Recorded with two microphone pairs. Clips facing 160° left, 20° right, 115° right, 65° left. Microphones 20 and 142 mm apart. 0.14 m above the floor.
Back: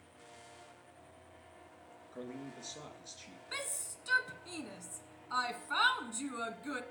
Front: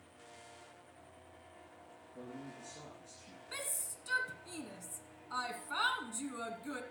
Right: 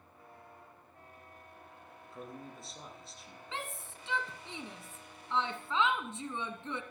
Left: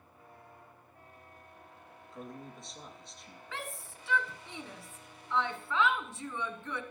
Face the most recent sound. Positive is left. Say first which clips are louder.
# back 2 dB, even
turn(degrees=-155)